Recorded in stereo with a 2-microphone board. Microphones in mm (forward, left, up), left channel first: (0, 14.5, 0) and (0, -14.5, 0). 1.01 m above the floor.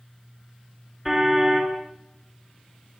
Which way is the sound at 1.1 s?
10° right (ahead or behind).